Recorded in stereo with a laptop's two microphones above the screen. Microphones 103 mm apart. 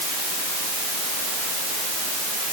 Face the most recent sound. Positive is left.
No sound to turn to.